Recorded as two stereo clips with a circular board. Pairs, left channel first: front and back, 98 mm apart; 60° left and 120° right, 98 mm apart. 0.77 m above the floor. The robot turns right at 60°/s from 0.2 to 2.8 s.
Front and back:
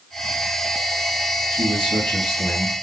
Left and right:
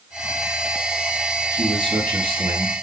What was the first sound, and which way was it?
A man speaking, straight behind.